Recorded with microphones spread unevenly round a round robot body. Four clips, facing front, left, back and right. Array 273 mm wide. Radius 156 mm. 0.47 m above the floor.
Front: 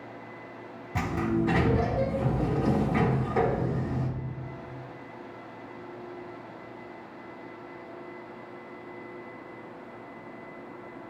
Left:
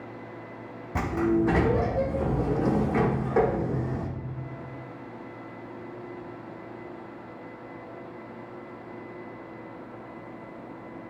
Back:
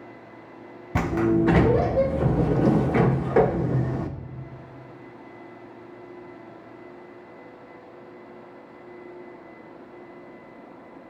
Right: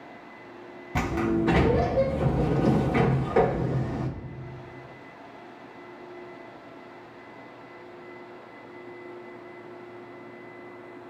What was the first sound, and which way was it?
A sliding door, 175° right.